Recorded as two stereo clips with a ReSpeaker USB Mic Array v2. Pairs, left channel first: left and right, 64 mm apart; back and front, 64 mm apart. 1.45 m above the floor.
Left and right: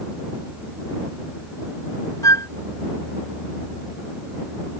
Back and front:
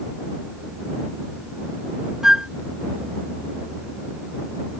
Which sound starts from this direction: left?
A flute, at 2.2 s.